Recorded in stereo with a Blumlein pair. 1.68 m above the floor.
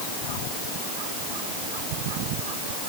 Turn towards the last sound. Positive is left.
No sound to turn to.